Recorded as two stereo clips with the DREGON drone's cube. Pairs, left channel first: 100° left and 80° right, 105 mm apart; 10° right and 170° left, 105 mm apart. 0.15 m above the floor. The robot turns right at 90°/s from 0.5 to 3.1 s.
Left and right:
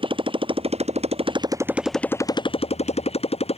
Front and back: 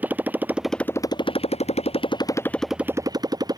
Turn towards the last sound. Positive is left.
turn(degrees=120)